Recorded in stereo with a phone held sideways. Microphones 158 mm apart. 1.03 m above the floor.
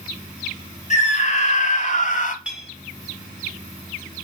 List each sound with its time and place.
0.9 s a scream: 50° left (ahead or behind), 3 m; by 2.4 s 55° left (ahead or behind), 2 m
2.5 s a clink: 5° right (ahead or behind), 6 m